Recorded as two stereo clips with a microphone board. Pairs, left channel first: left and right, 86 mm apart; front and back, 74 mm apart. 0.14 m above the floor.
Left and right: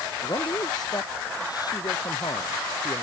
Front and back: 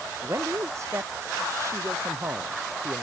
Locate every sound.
0.2 s a man speaking: 130° left